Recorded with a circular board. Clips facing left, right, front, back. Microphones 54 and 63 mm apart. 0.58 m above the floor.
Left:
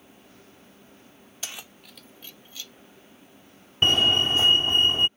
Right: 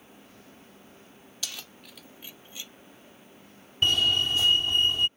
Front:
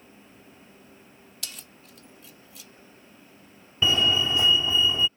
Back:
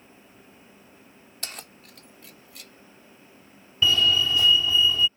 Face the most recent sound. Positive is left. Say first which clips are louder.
# left 3 dB, back 1 dB
turn(degrees=55)